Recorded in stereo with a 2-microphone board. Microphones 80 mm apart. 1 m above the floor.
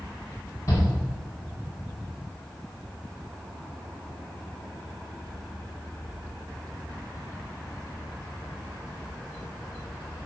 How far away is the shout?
About 3 m.